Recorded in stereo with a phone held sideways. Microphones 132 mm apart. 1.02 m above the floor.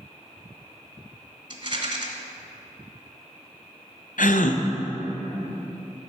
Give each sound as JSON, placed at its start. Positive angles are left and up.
{"t": 1.5, "sound": "a rattle", "side_deg": -40, "distance_m": 1.3}
{"t": 4.2, "sound": "a gasp", "side_deg": 80, "distance_m": 0.5}